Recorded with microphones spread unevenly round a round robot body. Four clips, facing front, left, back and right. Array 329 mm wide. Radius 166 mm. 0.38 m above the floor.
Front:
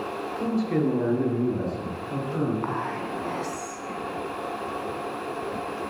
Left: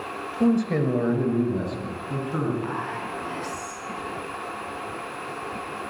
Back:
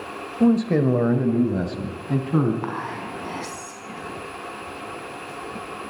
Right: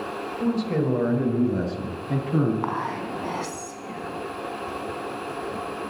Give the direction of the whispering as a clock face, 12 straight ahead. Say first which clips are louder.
Right 2 dB, front 1 dB; 4 o'clock.